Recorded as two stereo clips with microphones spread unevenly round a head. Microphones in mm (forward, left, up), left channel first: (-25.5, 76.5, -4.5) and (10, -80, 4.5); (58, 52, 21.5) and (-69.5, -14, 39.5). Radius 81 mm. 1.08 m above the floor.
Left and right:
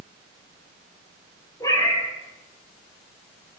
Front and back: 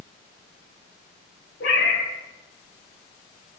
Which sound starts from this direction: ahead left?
A cat meowing, at 1.6 s.